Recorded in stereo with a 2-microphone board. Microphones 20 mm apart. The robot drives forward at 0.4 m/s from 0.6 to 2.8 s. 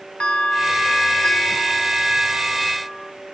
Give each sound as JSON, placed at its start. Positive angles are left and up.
{"t": 0.2, "sound": "a bell", "side_deg": 75, "distance_m": 0.9}